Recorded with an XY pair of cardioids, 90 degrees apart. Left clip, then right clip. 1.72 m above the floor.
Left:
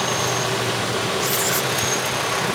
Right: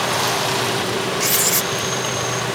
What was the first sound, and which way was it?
Writing, 50° right.